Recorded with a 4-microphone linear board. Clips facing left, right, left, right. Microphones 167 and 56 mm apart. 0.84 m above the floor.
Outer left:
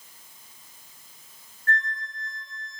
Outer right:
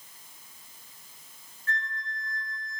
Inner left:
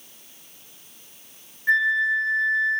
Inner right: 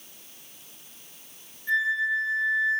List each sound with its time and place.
1.7 s a flute: 55° left (ahead or behind), 3.5 m